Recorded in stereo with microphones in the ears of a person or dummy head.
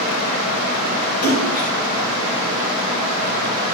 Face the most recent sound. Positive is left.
turn(degrees=55)  # may be behind; listen again after turning